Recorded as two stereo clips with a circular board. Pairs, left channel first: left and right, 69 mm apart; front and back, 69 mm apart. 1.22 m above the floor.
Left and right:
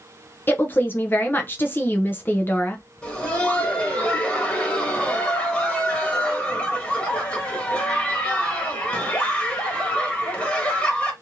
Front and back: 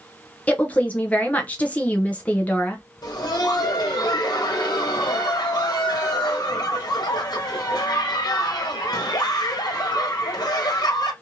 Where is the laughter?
20° left, 1.2 m.